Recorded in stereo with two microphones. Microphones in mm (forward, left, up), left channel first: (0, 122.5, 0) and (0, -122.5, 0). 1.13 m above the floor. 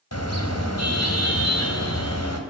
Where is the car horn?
75° left (ahead or behind), 4 m; by 2.4 s 85° left, 4 m.